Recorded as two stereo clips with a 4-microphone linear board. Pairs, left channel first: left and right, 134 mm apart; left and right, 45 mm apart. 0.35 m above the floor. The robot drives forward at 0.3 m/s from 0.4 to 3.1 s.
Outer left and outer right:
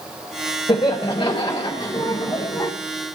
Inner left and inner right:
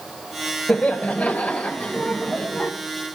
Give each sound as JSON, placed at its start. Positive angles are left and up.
{"t": 0.7, "sound": "laughter", "side_deg": 40, "distance_m": 1.0}